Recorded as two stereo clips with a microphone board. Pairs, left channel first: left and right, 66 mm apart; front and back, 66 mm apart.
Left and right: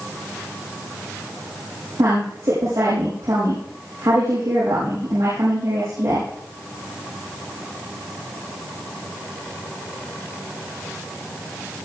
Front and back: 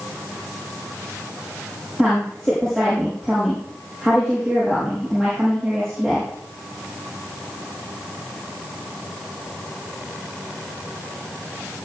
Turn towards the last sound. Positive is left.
turn(degrees=-85)